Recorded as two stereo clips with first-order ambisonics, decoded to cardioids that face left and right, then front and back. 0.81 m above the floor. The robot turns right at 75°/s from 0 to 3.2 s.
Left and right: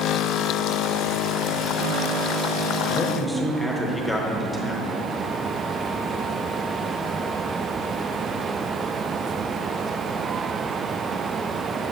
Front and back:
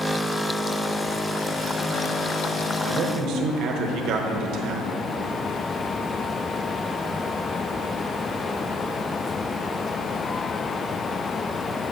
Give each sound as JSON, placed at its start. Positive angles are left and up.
{"t": 2.8, "sound": "a man speaking", "azimuth_deg": 145, "distance_m": 0.8}